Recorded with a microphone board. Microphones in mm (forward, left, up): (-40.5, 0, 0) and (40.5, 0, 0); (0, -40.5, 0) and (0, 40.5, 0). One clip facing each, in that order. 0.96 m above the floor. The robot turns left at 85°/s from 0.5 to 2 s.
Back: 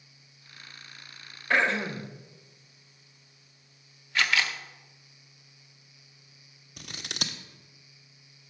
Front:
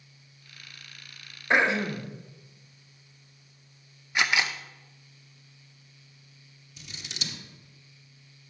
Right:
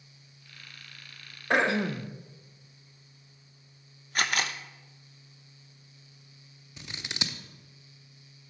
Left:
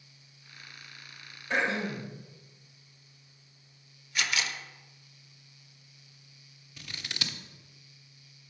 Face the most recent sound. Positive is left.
turn(degrees=-160)